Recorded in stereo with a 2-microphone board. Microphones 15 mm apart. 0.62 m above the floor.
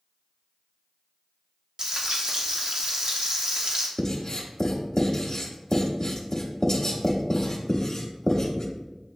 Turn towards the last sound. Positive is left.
turn(degrees=30)  # may be behind; listen again after turning